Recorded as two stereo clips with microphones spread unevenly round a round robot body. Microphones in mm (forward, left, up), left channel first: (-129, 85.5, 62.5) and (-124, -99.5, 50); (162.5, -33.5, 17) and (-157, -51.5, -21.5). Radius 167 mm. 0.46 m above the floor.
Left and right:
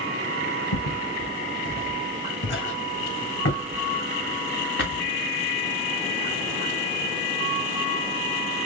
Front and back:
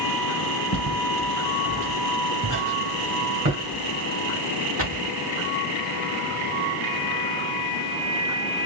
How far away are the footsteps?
About 1.4 m.